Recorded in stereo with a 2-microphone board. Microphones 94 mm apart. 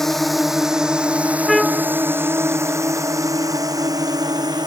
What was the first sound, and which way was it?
A drone, 5° left (ahead or behind).